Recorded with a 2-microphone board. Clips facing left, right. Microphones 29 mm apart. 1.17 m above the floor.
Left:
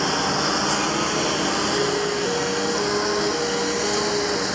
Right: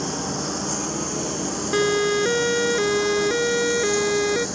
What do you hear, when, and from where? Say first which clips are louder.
0.0 s a lawn mower: left 6 dB; 50° left (ahead or behind)
1.7 s a siren: right 2 dB; 70° right (ahead or behind)